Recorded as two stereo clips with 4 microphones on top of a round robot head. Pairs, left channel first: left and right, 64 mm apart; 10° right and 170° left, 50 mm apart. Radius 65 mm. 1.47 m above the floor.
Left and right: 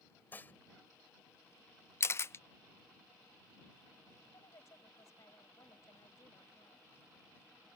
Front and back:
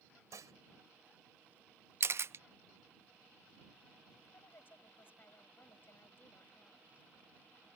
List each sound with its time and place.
0.3 s dishes clattering: 155° left
2.0 s a camera shutter: 140° left
4.3 s a woman speaking: 40° left